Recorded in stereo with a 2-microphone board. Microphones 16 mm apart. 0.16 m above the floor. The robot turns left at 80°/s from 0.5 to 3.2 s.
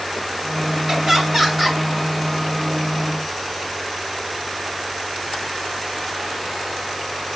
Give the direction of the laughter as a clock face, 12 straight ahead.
3 o'clock.